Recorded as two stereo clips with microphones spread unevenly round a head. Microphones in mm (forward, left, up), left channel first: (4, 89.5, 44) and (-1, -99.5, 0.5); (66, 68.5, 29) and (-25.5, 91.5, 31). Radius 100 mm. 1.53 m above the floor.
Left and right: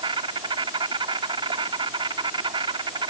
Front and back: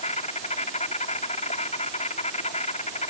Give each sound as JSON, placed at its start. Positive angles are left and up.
{"t": 0.0, "sound": "an insect", "azimuth_deg": -20}